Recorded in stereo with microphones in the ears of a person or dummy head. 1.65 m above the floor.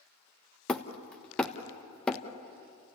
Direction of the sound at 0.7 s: 10° left (ahead or behind).